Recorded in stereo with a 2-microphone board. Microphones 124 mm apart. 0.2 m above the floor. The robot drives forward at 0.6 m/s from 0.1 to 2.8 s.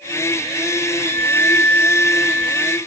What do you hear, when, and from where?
1.0 s a violin: 20° left (ahead or behind); by 2.8 s 10° left (ahead or behind)